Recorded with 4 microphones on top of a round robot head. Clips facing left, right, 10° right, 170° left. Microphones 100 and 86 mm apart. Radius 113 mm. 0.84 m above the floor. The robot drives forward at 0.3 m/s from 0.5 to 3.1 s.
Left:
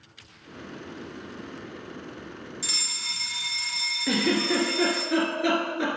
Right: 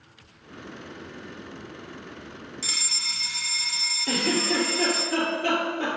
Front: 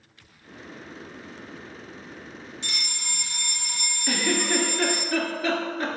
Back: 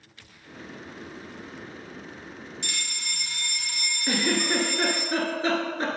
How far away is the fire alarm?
About 1.7 m.